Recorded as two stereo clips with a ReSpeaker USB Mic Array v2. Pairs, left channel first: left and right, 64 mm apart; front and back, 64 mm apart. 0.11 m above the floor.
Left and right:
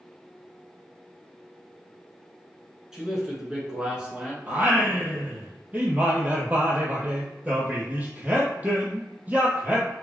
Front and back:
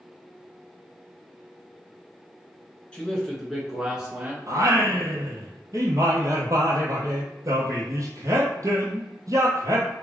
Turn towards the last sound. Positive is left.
turn(degrees=-150)